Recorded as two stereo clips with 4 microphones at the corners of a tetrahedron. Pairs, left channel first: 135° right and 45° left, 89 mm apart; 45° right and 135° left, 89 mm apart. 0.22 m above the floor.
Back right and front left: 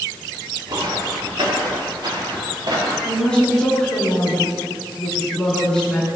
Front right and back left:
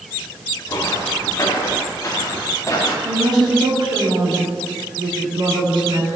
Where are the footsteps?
10° left, 3.5 m.